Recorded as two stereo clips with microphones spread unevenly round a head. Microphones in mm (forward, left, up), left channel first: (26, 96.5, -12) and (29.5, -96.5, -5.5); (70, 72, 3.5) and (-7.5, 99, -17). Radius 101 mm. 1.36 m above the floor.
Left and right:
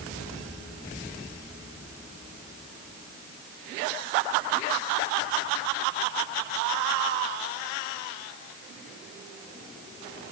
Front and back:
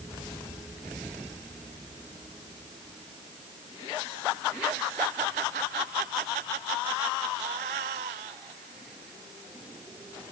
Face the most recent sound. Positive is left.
No sound to turn to.